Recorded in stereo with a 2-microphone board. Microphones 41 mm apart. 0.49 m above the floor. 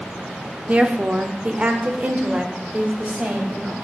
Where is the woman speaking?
30° right (ahead or behind), 0.8 m; by 3.7 s 35° right (ahead or behind), 2 m.